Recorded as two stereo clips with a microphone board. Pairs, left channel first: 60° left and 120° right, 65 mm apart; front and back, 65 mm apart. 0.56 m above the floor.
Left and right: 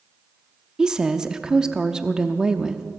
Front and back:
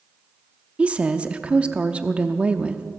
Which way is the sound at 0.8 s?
170° right.